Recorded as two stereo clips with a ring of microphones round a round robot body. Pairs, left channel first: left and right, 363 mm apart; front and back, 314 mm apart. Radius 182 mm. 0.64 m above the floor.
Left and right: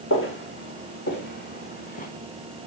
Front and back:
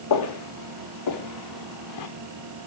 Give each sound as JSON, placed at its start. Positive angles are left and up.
{"t": 0.1, "sound": "footsteps", "azimuth_deg": 30, "distance_m": 5.0}